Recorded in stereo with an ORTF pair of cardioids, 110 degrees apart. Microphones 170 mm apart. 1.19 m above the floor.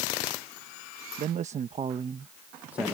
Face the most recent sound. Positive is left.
turn(degrees=0)